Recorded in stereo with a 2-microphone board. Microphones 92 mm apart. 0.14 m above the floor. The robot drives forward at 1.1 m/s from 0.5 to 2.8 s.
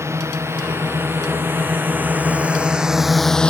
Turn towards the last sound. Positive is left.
turn(degrees=10)  # may be behind; listen again after turning